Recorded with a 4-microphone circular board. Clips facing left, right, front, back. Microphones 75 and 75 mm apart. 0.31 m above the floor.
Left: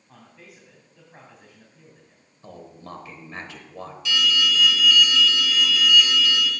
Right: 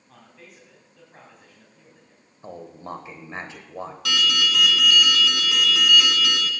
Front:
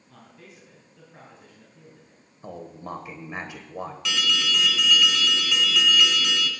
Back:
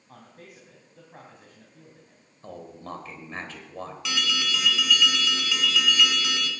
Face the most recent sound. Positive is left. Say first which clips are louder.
# left 1 dB, front 2 dB
turn(degrees=-90)